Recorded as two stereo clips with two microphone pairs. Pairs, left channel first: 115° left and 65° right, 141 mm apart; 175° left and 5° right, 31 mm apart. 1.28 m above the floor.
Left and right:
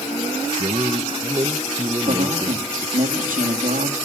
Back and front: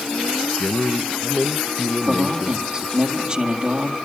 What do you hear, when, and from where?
0.6 s a man speaking: 120° right, 0.9 m
2.1 s a man speaking: 65° right, 2 m